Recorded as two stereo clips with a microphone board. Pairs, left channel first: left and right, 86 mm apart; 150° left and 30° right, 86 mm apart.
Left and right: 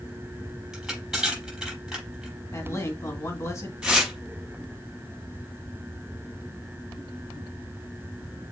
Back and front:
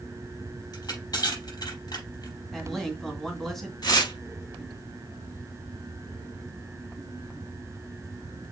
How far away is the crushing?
About 5.5 m.